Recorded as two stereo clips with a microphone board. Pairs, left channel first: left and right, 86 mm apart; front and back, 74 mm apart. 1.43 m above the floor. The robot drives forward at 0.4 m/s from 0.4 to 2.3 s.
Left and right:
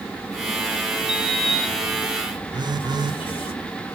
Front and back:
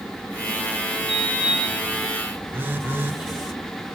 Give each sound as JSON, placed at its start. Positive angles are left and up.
{"t": 1.1, "sound": "a sliding door", "azimuth_deg": 80, "distance_m": 1.7}
{"t": 2.5, "sound": "a phone buzzing", "azimuth_deg": -115, "distance_m": 0.5}